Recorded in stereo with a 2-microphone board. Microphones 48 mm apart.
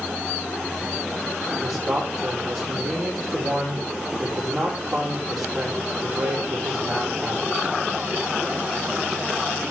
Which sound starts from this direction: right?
A man speaking, at 1.6 s.